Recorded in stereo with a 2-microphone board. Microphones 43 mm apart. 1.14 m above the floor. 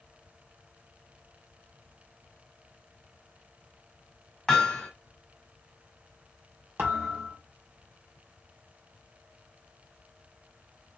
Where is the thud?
55° right (ahead or behind), 1.5 m.